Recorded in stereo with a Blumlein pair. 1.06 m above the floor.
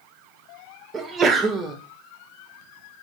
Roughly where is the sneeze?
Ahead.